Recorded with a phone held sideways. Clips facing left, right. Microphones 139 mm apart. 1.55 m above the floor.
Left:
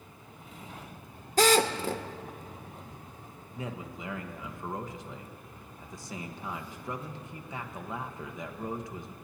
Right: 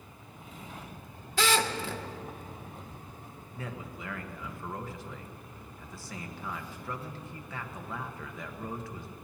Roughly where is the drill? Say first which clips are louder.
Left 5 dB; left.